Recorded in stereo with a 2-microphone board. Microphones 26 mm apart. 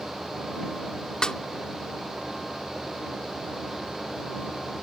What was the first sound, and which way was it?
A snare drum, 30° left (ahead or behind).